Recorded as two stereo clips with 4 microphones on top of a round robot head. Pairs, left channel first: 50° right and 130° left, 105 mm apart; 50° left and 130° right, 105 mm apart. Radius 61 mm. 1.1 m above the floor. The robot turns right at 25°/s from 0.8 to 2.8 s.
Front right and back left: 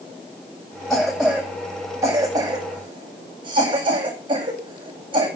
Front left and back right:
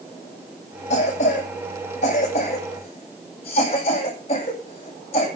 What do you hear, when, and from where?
0.9 s a cough: 40° left, 7.5 m; by 5.3 s 85° left, 7.5 m